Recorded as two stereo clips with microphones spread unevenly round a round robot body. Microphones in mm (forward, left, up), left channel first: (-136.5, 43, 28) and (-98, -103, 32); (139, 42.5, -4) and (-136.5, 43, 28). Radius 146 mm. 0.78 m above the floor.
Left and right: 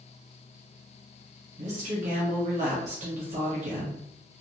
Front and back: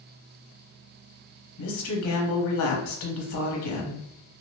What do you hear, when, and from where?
1.6 s a woman speaking: 30° right, 1.0 m